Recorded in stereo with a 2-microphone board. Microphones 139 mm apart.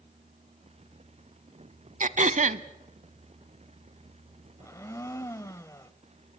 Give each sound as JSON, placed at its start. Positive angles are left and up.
{"t": 2.0, "sound": "throat clearing", "side_deg": -65, "distance_m": 0.7}
{"t": 4.6, "sound": "a blender", "side_deg": 20, "distance_m": 0.8}